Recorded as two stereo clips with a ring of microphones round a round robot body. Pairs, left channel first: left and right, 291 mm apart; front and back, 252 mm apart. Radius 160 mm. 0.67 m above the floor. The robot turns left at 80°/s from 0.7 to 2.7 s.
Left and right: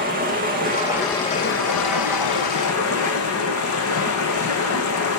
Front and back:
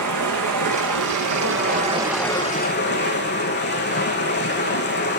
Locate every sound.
0.0 s running water: 155° right, 4 m; by 5.2 s 45° left, 4 m